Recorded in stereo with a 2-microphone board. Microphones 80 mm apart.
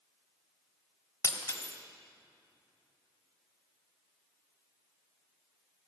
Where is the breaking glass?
30° left (ahead or behind), 1.5 m.